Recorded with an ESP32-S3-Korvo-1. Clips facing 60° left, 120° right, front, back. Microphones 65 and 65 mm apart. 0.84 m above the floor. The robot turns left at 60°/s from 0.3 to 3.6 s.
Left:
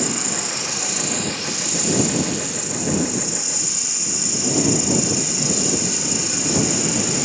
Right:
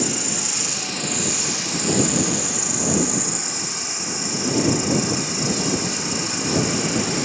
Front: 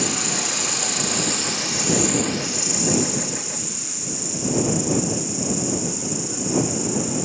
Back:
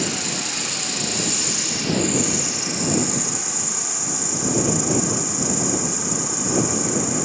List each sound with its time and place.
0.0 s an insect: 20° left; by 7.3 s 175° right